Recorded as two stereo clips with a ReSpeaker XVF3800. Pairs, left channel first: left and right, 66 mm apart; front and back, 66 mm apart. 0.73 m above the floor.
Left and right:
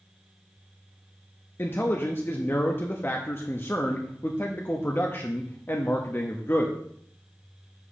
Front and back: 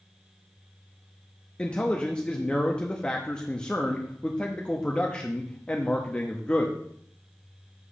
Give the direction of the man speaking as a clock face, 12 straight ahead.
10 o'clock.